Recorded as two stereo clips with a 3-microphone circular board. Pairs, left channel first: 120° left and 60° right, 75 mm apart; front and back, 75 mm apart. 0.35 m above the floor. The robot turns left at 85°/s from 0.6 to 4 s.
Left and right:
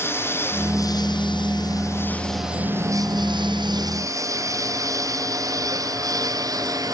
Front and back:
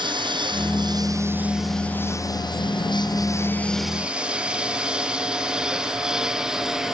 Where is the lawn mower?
Straight behind; by 7.0 s 95° right.